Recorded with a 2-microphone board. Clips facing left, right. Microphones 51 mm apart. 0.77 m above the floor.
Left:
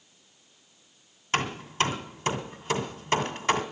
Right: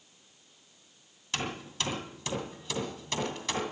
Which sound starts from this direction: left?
Hammering, at 1.3 s.